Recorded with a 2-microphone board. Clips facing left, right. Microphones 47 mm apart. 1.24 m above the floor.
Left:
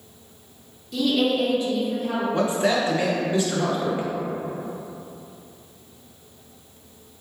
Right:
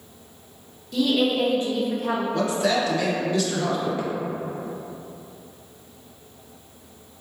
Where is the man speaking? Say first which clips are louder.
Left 2 dB; 25° left (ahead or behind), 0.6 m.